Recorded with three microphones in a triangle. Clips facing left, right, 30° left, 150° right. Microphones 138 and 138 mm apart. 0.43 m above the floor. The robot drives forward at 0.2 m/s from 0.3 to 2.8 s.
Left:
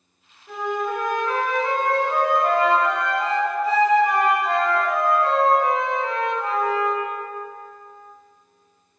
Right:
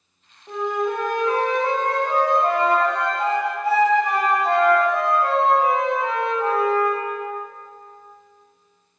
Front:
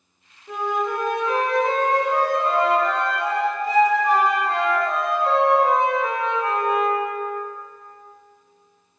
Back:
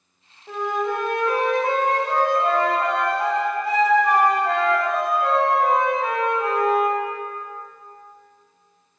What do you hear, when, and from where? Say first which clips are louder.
0.5 s a flute: right 2 dB, even; 135° right, 0.9 m; by 7.0 s 155° right, 1.3 m